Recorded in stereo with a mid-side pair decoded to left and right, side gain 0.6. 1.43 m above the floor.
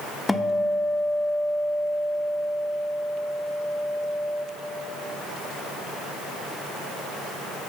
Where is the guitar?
10° left, 0.6 m.